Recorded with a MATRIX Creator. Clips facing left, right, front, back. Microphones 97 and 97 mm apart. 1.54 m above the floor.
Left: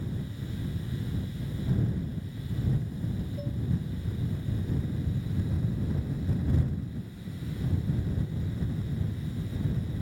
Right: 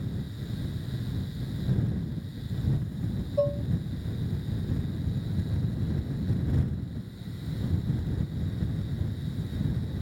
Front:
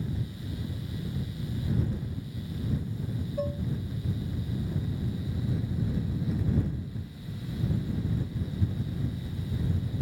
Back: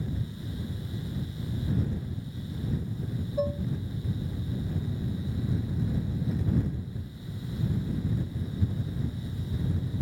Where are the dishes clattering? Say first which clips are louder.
Right 11 dB, back 4 dB; 100° right.